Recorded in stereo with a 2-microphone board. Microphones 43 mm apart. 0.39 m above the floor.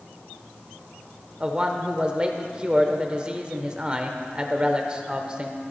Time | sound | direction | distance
1.4 | a man speaking | 25° right (ahead or behind) | 0.9 m